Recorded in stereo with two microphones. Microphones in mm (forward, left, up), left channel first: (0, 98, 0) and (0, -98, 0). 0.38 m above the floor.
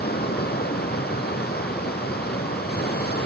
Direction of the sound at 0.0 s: 55° left (ahead or behind).